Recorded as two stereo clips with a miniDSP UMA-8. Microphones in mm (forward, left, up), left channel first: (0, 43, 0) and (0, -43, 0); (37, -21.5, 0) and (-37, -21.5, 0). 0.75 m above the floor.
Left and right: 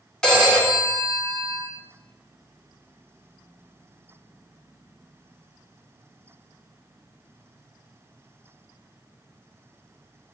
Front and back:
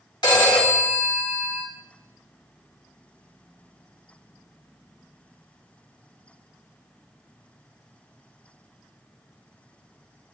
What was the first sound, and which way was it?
A phone ringing, 10° left.